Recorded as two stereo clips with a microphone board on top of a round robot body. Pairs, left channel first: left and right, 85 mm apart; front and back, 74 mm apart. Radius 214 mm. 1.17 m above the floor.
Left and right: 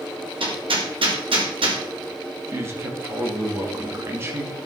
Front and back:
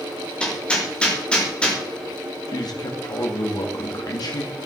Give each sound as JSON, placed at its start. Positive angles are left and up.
{"t": 0.4, "sound": "hammering", "azimuth_deg": -75, "distance_m": 3.5}
{"t": 2.5, "sound": "a man speaking", "azimuth_deg": -30, "distance_m": 2.5}